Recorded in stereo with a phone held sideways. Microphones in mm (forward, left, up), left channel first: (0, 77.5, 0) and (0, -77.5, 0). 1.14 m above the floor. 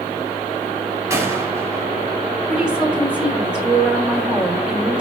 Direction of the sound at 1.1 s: 20° right (ahead or behind).